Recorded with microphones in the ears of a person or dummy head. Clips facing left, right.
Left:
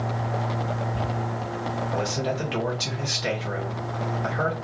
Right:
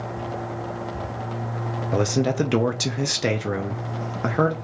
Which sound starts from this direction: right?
A man speaking, at 1.9 s.